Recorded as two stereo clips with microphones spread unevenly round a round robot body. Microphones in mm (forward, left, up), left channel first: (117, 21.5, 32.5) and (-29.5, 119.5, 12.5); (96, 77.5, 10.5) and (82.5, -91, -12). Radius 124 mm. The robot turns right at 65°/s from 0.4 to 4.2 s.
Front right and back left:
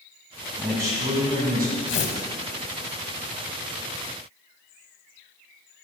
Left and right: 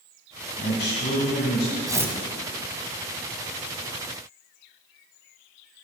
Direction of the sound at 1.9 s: 30° right.